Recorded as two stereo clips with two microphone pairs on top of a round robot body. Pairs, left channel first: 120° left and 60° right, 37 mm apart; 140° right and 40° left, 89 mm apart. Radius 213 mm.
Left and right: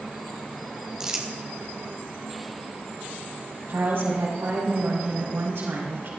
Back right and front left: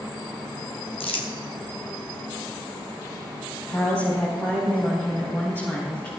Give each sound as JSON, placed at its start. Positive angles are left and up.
{"t": 1.0, "sound": "crumpling", "azimuth_deg": -130, "distance_m": 2.5}
{"t": 3.7, "sound": "a woman speaking", "azimuth_deg": -75, "distance_m": 4.5}